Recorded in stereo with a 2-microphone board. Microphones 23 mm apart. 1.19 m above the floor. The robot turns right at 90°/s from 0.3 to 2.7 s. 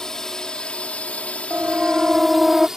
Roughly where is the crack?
No crack in this recording.